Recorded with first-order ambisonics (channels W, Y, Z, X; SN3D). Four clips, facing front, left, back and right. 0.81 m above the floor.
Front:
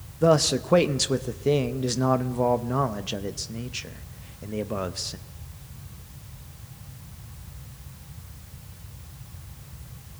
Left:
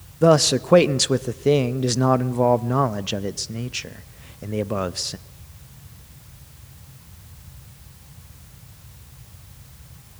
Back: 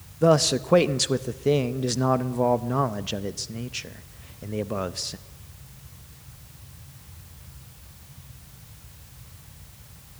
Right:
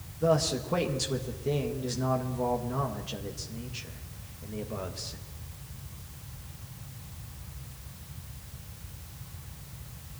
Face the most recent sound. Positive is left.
turn(degrees=95)